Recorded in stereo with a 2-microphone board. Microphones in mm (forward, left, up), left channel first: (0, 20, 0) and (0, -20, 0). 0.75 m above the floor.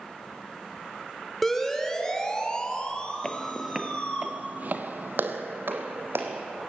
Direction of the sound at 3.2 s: 15° left (ahead or behind).